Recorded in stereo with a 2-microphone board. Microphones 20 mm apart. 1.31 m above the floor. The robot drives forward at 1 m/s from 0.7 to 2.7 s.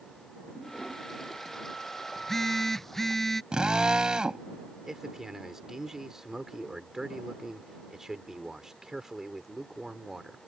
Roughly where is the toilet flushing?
Centre.